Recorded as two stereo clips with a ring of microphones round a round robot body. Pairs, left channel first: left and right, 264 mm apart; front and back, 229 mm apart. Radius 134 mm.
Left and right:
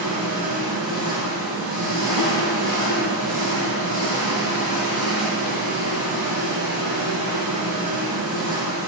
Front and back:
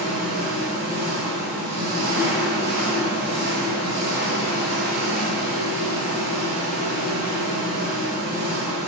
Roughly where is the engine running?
Behind right.